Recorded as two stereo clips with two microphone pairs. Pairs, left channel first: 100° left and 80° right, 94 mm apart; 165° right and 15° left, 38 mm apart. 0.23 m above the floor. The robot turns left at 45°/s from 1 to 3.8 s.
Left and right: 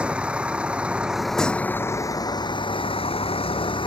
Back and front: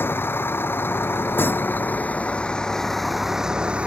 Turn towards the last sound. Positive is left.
turn(degrees=75)